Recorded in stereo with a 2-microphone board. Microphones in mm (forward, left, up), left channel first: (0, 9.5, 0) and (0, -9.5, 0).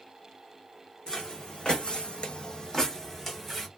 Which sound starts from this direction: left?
Footsteps, at 1.1 s.